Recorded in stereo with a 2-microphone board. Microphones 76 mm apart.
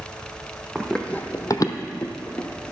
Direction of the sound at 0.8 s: Centre (ahead or behind).